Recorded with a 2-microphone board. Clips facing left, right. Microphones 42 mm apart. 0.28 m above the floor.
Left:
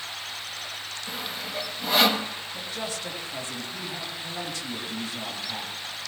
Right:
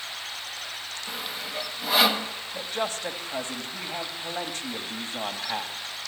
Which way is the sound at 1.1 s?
Centre (ahead or behind).